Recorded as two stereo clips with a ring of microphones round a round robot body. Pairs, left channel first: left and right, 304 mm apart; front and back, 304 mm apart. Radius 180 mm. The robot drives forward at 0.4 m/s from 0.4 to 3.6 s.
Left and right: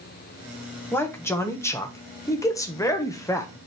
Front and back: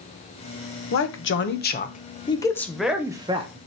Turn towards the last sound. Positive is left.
turn(degrees=155)